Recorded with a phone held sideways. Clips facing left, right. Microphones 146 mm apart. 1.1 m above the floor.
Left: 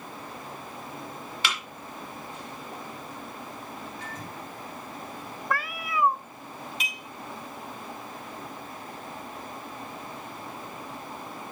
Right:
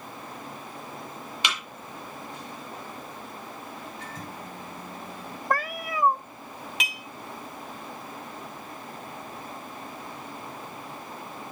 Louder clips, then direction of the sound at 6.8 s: Right 2 dB; 80° right.